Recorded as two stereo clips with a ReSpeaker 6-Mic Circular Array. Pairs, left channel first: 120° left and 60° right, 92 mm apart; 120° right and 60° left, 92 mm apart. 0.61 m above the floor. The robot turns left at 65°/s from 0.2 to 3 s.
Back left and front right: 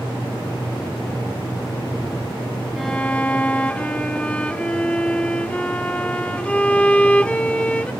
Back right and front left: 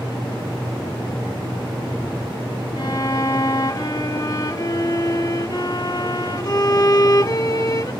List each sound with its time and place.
2.8 s a violin: 150° right; by 7.9 s 165° right